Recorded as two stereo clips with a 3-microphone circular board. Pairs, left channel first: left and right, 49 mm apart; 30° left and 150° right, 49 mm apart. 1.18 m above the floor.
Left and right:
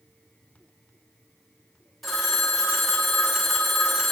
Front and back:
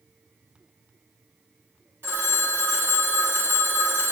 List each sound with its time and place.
2.0 s a phone ringing: straight behind, 1.2 m